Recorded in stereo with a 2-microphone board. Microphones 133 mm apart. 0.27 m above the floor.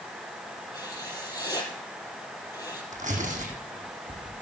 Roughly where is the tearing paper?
Right.